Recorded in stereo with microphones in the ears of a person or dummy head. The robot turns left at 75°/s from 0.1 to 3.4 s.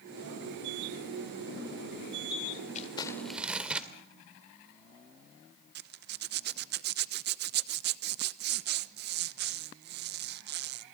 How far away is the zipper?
About 1.0 m.